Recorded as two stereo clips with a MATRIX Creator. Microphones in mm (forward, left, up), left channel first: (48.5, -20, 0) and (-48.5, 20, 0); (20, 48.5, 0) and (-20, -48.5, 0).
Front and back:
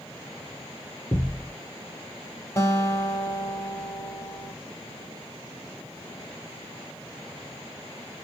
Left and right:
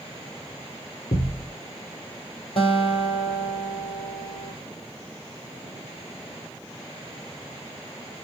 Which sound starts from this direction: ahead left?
A guitar, at 2.6 s.